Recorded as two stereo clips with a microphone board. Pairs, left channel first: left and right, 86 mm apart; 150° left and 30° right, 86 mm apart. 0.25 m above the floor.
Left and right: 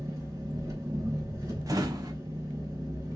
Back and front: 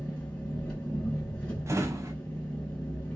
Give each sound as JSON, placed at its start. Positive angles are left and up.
{"t": 0.0, "sound": "an engine running", "azimuth_deg": -135, "distance_m": 2.5}
{"t": 1.7, "sound": "a drawer", "azimuth_deg": -70, "distance_m": 0.9}